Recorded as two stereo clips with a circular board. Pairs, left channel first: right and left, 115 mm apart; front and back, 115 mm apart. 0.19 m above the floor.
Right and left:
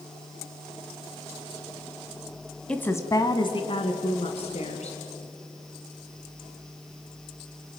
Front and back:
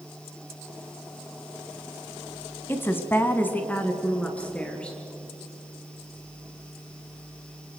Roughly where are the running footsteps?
No running footsteps in this recording.